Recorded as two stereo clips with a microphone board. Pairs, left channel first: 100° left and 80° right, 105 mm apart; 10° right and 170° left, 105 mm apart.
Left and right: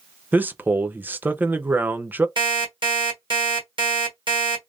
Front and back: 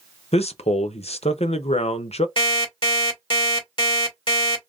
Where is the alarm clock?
40° right, 1.8 m.